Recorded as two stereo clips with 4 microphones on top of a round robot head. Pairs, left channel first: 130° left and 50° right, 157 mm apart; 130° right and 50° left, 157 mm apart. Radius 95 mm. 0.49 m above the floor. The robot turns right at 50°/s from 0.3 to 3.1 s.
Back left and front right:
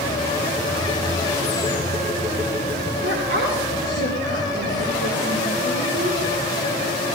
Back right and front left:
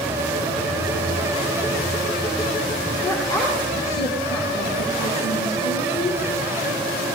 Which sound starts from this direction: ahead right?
A woman speaking, at 3.0 s.